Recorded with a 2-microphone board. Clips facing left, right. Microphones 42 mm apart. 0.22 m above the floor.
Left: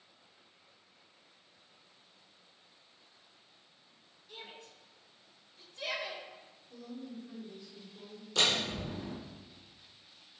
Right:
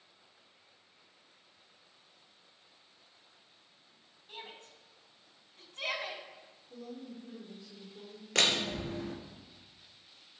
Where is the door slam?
65° right (ahead or behind), 2.5 m.